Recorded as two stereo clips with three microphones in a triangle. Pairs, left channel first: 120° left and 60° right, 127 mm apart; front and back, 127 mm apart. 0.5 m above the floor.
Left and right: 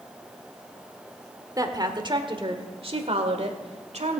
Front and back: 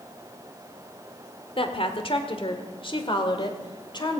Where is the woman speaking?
10° right, 1.8 m; by 4.2 s 50° right, 2.5 m.